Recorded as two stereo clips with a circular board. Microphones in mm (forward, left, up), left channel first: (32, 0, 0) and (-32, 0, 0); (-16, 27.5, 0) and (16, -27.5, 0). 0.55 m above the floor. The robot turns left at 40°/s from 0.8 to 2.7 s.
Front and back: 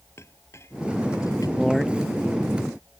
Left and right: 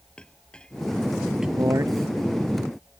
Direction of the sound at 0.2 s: 45° left.